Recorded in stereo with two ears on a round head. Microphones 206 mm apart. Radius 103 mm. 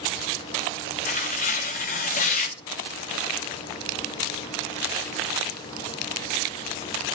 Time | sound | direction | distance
1.1 | tearing paper | 35° left (ahead or behind) | 1.3 m